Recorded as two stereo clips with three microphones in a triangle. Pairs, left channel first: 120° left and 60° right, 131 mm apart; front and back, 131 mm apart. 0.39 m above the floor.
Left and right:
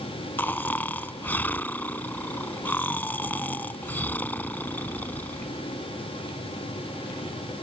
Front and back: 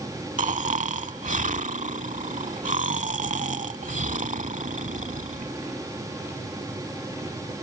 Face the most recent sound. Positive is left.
turn(degrees=-165)